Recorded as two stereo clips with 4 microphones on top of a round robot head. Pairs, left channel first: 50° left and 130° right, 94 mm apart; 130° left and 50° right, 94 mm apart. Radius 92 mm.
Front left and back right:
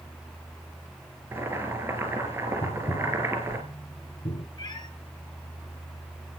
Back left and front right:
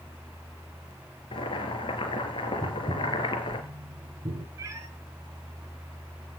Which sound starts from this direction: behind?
Boiling, at 1.3 s.